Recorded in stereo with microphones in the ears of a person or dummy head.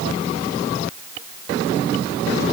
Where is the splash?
I don't hear a splash.